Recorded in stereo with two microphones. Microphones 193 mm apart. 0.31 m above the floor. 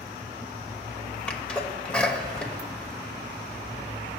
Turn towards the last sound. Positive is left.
turn(degrees=5)  # may be behind; listen again after turning